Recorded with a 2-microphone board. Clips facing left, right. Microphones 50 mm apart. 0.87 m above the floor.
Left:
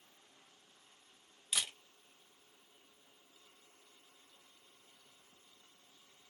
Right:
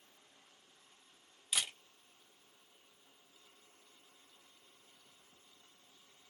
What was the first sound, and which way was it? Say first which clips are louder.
A camera shutter: right 1 dB; 5° right (ahead or behind).